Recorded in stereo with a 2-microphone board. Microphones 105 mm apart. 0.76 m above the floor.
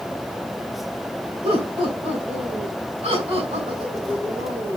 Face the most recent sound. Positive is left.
turn(degrees=-75)  # may be behind; listen again after turning